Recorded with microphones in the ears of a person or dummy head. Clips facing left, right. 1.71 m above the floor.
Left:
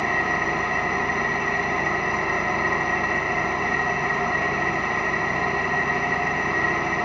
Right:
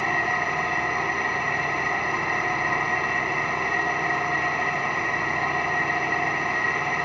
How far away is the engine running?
About 1.1 m.